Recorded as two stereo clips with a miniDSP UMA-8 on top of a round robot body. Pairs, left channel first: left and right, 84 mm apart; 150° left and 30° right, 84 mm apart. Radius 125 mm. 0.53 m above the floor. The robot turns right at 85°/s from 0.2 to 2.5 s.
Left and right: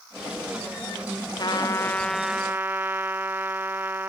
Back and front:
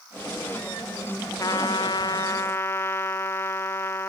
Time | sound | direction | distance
1.4 | a trumpet | 110° left | ?